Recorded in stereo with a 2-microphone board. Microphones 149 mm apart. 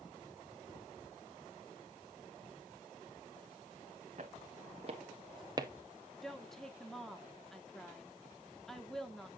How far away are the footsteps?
About 1.9 m.